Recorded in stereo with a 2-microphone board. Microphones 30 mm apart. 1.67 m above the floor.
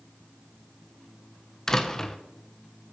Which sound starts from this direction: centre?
A door slam, at 1.7 s.